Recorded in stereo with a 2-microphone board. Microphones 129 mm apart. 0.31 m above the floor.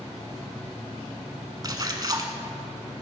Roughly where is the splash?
Right.